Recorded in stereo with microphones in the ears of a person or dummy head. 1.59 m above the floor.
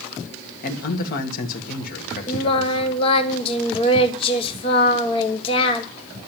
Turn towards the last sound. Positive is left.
turn(degrees=30)  # may be behind; listen again after turning